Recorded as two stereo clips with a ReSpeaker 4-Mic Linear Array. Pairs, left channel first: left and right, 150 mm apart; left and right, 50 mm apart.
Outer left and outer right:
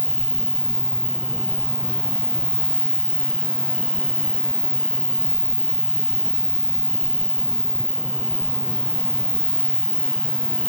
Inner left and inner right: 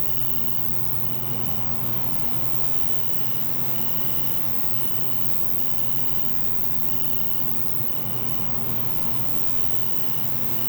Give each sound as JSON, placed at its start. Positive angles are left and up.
{"t": 0.0, "sound": "an insect", "side_deg": -5}